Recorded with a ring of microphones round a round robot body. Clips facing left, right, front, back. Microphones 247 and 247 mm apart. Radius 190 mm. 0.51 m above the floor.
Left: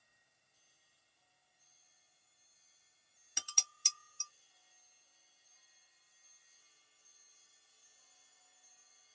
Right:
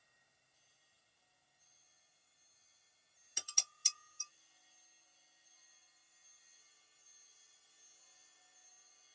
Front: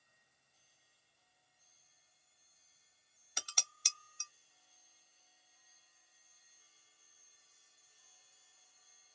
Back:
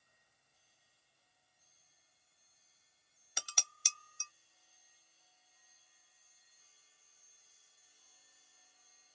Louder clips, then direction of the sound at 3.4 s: Left 1 dB, back 1 dB; 95° left.